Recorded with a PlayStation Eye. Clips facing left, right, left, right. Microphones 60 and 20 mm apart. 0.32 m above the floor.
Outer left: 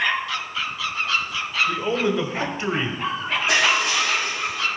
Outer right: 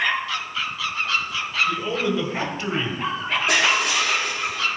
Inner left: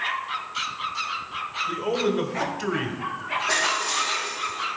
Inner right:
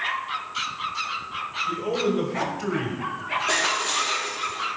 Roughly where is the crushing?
Right.